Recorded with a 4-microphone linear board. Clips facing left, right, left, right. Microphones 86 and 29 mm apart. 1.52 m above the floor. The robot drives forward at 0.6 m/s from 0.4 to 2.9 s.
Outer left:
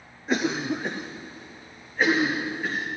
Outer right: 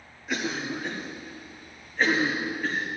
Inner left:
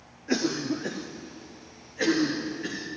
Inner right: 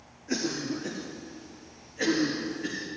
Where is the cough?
35° left (ahead or behind), 0.6 m; by 2.9 s 10° left (ahead or behind), 1.9 m.